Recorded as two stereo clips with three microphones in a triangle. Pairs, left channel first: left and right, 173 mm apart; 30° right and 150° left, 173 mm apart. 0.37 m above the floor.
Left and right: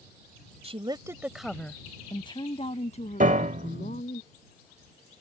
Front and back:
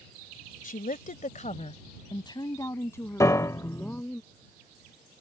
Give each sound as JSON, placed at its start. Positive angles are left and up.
{"t": 0.6, "sound": "a woman speaking", "azimuth_deg": -45}
{"t": 3.2, "sound": "a piano", "azimuth_deg": -95}